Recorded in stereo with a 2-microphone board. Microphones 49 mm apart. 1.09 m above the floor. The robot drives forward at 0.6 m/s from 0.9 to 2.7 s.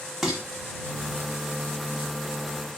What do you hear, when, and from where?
0.2 s dishes clattering: 5° right (ahead or behind), 1.1 m